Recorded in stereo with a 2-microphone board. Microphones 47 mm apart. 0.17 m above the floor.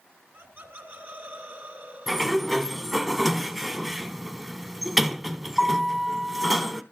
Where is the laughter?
50° right (ahead or behind), 2 m.